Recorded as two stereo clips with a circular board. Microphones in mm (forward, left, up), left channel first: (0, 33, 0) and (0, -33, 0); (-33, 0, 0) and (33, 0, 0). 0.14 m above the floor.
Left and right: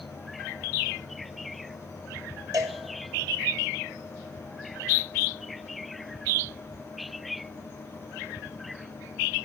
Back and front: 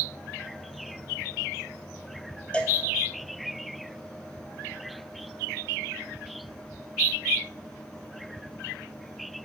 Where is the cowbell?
110° right, 0.6 m.